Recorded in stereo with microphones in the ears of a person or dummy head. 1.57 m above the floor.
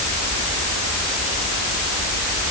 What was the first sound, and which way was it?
Only background noise.